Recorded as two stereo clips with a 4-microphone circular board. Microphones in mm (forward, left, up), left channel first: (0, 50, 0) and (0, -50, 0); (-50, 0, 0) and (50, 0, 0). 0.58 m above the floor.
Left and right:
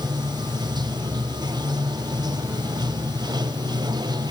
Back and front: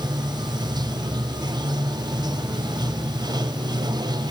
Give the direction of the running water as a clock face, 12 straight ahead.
2 o'clock.